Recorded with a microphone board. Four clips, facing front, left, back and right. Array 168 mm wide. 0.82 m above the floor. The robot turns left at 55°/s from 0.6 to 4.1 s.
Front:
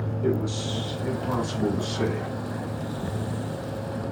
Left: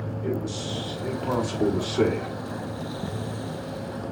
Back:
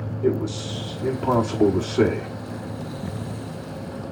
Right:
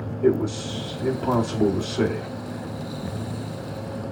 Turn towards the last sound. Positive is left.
turn(degrees=65)